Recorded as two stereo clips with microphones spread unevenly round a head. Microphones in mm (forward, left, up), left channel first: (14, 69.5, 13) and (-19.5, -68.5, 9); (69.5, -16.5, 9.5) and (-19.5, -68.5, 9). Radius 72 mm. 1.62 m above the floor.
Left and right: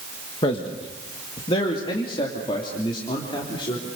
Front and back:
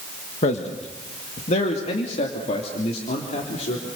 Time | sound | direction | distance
0.4 | a man speaking | 20° left | 1.6 m